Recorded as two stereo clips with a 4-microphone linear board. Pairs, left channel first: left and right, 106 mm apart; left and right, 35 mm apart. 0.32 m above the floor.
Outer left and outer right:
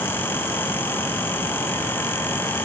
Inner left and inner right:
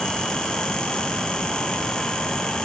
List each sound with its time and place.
Only background noise.